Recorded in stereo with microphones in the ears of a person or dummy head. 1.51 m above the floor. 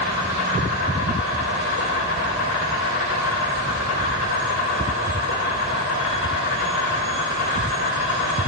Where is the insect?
80° left, 1.8 m.